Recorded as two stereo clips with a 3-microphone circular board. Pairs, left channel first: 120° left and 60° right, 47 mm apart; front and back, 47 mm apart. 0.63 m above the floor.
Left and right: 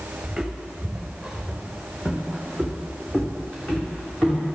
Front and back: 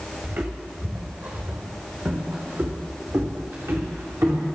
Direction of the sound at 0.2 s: 145° right.